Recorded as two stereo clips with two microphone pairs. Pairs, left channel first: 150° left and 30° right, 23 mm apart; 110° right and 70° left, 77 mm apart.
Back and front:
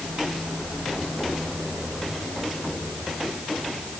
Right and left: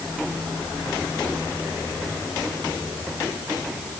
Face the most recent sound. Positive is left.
No sound to turn to.